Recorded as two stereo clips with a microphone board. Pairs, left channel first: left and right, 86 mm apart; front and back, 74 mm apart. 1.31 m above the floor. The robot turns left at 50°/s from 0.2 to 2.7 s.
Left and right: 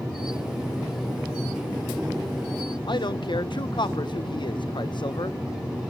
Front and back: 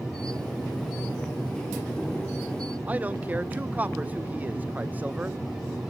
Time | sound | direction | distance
2.9 | a man speaking | 115° left | 0.9 m